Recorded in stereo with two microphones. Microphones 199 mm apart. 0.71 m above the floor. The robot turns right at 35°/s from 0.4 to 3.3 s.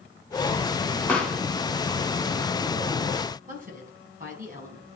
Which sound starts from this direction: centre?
A pop, at 1.1 s.